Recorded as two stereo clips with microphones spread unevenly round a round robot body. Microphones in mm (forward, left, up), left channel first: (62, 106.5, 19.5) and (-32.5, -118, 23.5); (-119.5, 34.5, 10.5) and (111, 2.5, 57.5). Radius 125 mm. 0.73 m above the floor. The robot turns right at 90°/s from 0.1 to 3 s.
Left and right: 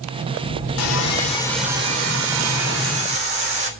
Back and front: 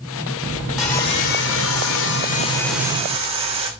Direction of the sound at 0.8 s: 85° left.